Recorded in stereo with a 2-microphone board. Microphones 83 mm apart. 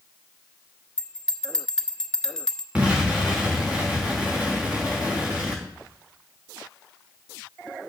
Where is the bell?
10° left (ahead or behind), 0.8 m.